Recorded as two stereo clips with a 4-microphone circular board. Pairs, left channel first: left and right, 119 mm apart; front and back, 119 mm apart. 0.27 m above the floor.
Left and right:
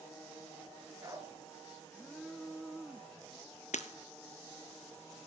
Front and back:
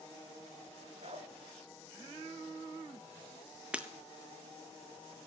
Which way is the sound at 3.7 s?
100° left.